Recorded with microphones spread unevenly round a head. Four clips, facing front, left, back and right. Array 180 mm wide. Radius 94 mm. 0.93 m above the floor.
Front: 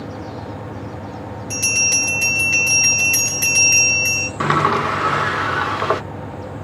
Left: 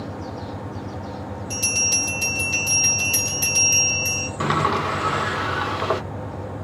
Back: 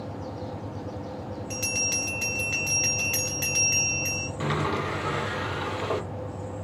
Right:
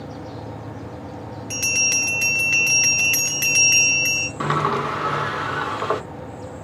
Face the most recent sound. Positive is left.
turn(degrees=10)